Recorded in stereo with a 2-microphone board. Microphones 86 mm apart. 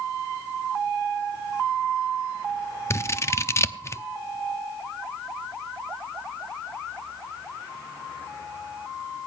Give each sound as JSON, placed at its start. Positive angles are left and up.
{"t": 2.9, "sound": "scissors", "side_deg": 30, "distance_m": 0.7}